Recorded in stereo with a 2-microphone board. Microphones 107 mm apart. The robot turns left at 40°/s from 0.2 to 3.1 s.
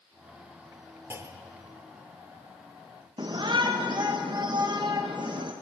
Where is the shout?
40° right (ahead or behind), 0.5 m.